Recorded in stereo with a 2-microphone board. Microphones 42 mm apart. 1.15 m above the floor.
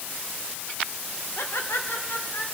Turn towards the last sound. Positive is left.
turn(degrees=75)  # may be behind; listen again after turning